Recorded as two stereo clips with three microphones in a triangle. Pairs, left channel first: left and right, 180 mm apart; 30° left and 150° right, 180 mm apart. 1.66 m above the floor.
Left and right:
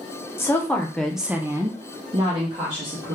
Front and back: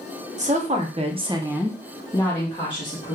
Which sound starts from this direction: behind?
A woman speaking, at 0.4 s.